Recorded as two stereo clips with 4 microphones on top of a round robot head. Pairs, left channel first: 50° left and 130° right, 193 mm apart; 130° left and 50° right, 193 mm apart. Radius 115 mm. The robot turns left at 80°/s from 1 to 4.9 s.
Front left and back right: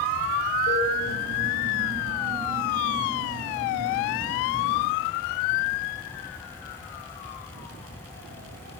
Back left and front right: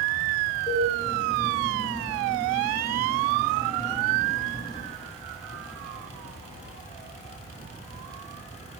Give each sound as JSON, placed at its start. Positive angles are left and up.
{"t": 0.7, "sound": "a cowbell", "azimuth_deg": 70, "distance_m": 5.0}